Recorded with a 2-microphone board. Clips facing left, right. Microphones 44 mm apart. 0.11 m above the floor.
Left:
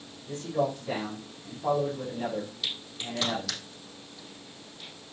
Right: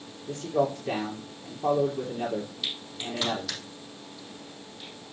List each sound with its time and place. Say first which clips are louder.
0.3 s a man speaking: right 2 dB; 55° right (ahead or behind), 3 m
2.6 s a crack: right 1 dB; 10° right (ahead or behind), 4.5 m